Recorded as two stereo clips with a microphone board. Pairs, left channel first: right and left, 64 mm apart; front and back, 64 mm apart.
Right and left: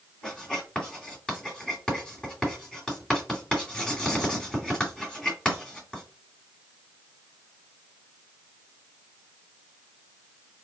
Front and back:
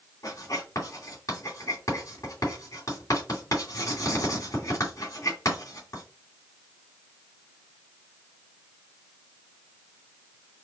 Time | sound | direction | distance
0.2 | writing | 15° right | 3 m